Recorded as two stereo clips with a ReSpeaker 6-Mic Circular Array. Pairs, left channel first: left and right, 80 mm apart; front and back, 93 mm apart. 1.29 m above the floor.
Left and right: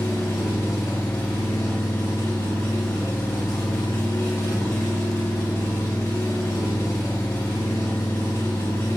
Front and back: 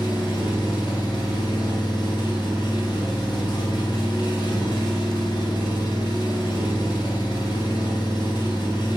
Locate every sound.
0.0 s an engine running: 35° left, 7 m